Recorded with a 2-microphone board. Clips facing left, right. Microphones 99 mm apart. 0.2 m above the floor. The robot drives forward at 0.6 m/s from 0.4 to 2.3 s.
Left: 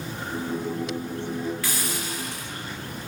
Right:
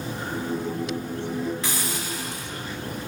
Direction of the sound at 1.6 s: 25° right (ahead or behind).